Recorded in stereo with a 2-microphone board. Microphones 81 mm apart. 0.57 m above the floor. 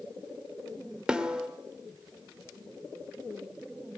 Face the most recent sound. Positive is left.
turn(degrees=-10)  # may be behind; listen again after turning